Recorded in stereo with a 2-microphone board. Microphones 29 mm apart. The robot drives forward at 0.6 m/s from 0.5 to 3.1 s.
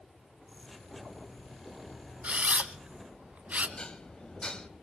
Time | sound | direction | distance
2.2 | a camera shutter | 50° right (ahead or behind) | 1.2 m
3.8 | dishes clattering | 30° left (ahead or behind) | 0.8 m